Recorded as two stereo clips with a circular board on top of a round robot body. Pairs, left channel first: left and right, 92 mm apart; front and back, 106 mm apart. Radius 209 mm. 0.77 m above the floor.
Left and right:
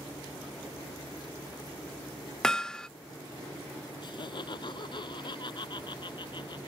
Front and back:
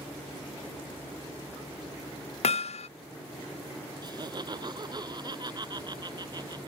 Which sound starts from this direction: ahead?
Hammering, at 2.4 s.